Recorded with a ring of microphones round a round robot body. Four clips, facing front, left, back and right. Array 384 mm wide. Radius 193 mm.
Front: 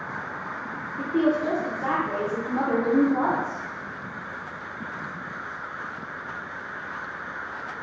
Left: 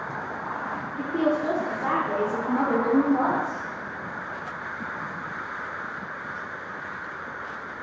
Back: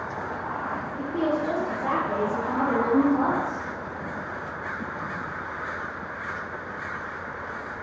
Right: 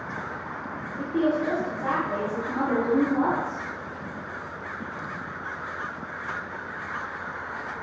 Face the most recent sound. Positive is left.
turn(degrees=35)